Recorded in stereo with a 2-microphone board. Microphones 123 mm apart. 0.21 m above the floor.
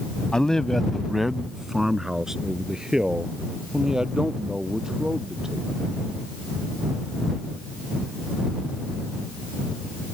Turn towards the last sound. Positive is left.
turn(degrees=-5)  # may be behind; listen again after turning